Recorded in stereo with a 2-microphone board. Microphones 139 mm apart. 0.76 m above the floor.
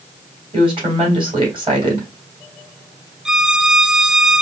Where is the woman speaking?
40° right (ahead or behind), 3 m.